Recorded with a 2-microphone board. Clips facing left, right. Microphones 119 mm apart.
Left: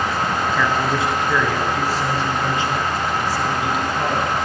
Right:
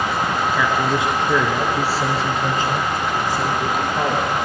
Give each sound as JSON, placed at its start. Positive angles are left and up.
{"t": 0.5, "sound": "a man speaking", "side_deg": -5, "distance_m": 1.7}